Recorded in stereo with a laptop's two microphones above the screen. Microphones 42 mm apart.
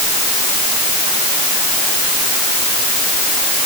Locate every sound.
Only background noise.